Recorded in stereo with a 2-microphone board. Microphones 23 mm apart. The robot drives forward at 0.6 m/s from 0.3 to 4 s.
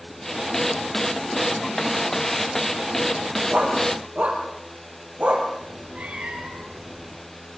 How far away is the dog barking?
About 5 m.